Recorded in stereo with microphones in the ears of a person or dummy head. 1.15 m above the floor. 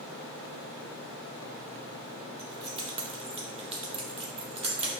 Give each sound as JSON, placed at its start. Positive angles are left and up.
{"t": 2.4, "sound": "keys jangling", "side_deg": -30, "distance_m": 0.6}